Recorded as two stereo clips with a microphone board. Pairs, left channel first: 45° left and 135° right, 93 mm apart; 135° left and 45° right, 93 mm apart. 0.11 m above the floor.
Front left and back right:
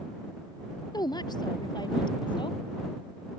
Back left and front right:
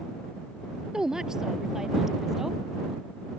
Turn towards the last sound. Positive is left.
turn(degrees=40)